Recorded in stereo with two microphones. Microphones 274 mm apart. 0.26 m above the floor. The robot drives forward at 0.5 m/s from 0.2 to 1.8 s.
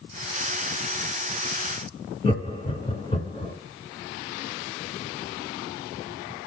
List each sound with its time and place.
2.2 s laughter: 20° left (ahead or behind), 0.9 m